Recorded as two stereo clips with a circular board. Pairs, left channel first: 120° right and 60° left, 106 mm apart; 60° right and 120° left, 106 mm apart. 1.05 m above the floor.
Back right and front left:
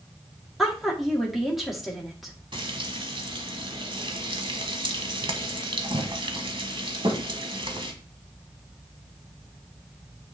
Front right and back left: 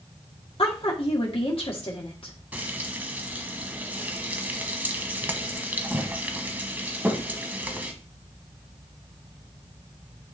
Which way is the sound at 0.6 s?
30° right.